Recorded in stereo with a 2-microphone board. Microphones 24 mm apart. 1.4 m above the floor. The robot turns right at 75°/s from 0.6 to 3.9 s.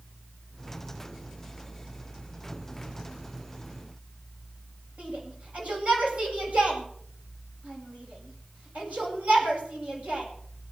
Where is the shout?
65° right (ahead or behind), 8 m.